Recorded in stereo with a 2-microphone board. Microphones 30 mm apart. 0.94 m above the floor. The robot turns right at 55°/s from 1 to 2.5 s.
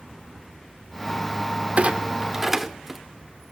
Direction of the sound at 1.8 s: 45° right (ahead or behind).